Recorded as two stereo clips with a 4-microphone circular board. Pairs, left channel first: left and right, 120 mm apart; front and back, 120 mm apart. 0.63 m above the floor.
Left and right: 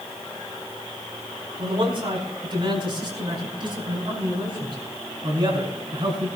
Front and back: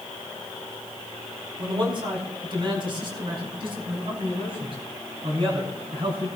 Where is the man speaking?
135° right, 4.5 m; by 6.3 s 140° right, 7 m.